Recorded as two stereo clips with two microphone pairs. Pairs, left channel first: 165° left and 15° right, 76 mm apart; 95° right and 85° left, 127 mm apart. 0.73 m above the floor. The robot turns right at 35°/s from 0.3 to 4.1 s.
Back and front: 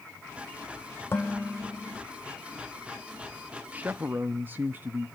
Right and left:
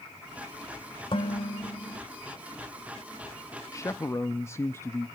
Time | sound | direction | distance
1.1 | dishes clattering | 140° right | 1.8 m
3.7 | a man speaking | 70° right | 0.6 m